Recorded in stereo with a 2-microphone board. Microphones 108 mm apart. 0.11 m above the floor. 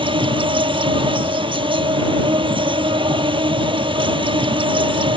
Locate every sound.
0.0 s an insect: 55° right (ahead or behind)